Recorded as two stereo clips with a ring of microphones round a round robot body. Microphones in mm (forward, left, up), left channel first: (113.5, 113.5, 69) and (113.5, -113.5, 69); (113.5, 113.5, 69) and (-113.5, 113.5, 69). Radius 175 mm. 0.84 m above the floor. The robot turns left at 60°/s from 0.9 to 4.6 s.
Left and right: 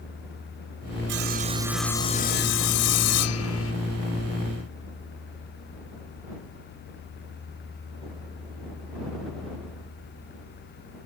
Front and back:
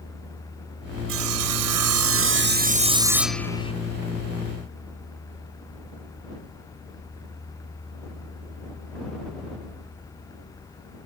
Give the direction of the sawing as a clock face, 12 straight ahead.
5 o'clock.